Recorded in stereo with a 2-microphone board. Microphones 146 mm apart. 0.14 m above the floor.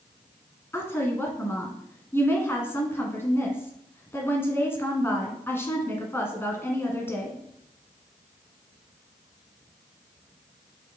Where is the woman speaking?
15° left (ahead or behind), 1.4 m.